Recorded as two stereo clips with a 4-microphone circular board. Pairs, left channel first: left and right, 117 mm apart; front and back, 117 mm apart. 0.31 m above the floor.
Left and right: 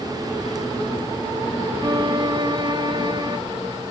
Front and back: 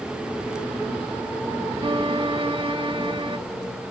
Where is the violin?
140° right, 1.2 m.